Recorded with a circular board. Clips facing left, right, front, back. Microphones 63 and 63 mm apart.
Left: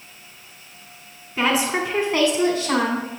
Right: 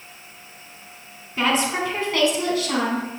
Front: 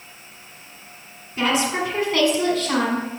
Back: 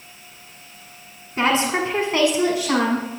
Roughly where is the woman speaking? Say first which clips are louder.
Left 1 dB, back 2 dB; behind.